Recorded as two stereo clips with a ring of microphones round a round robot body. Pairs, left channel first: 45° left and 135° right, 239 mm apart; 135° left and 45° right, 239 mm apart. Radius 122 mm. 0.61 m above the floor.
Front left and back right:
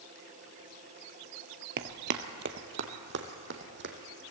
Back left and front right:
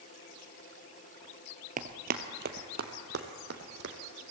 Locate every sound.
1.8 s running footsteps: 95° right, 0.9 m; by 4.0 s 90° right, 2 m